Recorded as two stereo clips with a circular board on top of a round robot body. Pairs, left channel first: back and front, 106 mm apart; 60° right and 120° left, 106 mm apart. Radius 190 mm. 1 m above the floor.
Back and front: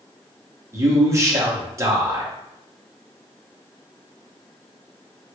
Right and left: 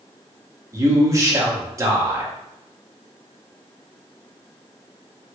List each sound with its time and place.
0.7 s a man speaking: 60° left, 1.0 m